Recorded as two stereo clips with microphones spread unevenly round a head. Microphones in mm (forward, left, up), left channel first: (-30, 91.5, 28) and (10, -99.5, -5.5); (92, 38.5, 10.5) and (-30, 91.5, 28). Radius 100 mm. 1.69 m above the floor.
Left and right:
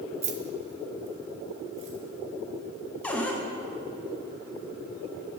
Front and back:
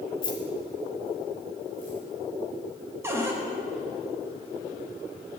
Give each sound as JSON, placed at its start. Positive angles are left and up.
{"t": 0.2, "sound": "keys jangling", "azimuth_deg": -40, "distance_m": 0.6}
{"t": 3.0, "sound": "a cupboard door", "azimuth_deg": 150, "distance_m": 0.7}